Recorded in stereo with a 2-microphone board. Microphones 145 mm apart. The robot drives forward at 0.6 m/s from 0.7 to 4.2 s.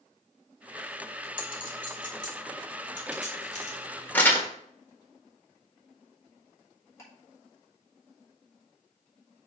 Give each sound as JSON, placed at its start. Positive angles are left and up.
{"t": 1.4, "sound": "a clink", "side_deg": 70, "distance_m": 2.0}
{"t": 4.1, "sound": "crumpling", "side_deg": 15, "distance_m": 1.2}
{"t": 7.0, "sound": "ticking", "side_deg": 20, "distance_m": 3.0}